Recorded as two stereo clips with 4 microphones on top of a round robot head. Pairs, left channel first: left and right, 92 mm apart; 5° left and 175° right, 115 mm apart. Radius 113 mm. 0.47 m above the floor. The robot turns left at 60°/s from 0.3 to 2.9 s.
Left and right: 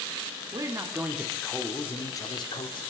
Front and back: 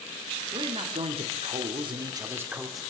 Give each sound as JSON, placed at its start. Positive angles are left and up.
{"t": 0.5, "sound": "a man speaking", "azimuth_deg": -130, "distance_m": 1.2}